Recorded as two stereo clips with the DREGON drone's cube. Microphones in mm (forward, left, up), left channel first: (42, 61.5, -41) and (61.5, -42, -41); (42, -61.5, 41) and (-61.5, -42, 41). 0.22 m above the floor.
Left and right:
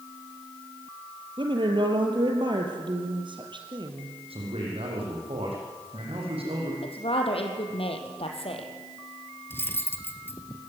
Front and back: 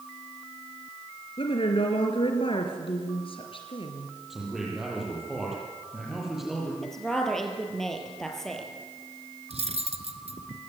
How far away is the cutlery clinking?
About 1.9 m.